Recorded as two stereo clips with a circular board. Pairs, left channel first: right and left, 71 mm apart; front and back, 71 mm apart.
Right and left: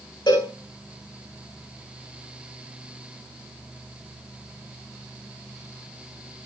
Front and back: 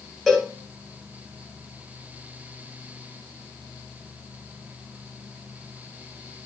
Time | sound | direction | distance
0.3 | a cowbell | 90° right | 5 m